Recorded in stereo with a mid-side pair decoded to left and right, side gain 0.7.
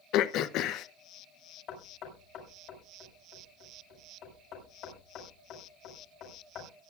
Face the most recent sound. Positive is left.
turn(degrees=55)